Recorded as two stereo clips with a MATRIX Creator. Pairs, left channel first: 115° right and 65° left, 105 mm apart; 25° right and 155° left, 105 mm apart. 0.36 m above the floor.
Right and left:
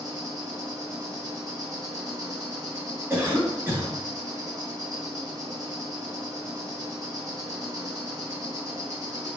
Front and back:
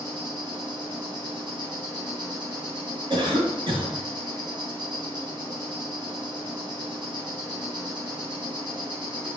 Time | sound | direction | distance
0.0 | an insect | 120° left | 3 m
3.1 | a cough | 130° left | 2.5 m